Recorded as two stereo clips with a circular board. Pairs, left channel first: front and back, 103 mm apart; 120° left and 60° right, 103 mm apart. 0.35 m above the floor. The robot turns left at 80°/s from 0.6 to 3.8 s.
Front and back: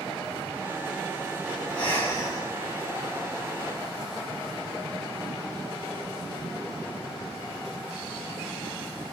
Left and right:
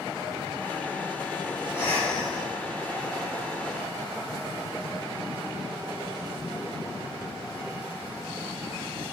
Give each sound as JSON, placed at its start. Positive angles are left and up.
{"t": 1.7, "sound": "breathing", "azimuth_deg": 80, "distance_m": 1.2}